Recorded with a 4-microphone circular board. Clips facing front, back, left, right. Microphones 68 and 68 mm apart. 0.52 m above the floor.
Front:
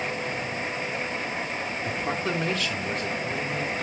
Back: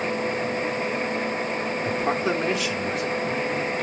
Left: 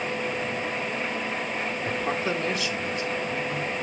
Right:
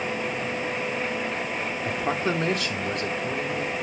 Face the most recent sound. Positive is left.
turn(degrees=-95)